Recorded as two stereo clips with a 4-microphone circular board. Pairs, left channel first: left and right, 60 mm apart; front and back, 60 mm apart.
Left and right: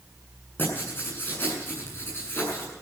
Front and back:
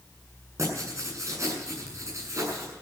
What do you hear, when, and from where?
0.6 s writing: 145° left, 7.5 m